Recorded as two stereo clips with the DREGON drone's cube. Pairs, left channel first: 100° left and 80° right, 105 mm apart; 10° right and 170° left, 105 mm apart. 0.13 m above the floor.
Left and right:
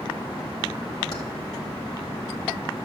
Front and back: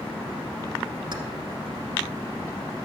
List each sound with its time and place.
1.1 s keys jangling: 150° left, 1.8 m